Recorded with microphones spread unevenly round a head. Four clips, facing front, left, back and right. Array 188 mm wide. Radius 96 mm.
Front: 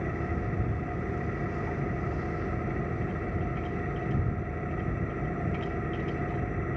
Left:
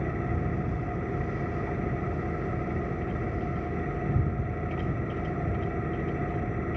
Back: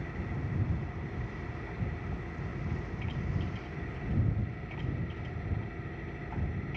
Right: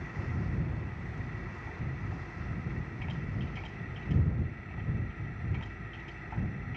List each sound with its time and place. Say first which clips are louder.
0.0 s an engine running: left 9 dB, front 7 dB; 60° left